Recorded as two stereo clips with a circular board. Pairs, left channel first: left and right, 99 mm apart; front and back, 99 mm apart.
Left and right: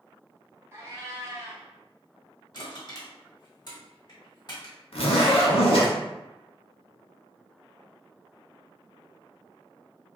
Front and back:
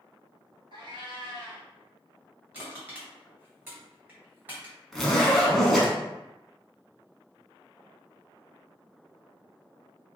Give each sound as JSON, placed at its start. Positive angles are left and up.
{"t": 0.7, "sound": "a cat meowing", "azimuth_deg": -155, "distance_m": 0.9}
{"t": 2.5, "sound": "crushing", "azimuth_deg": 115, "distance_m": 1.9}
{"t": 4.9, "sound": "a zipper", "azimuth_deg": 90, "distance_m": 0.8}